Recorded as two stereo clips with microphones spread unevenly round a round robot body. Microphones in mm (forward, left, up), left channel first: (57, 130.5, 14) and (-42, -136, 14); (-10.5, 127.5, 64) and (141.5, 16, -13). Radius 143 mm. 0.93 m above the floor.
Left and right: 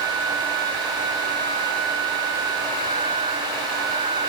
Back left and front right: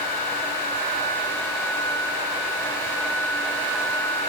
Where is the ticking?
No ticking in this recording.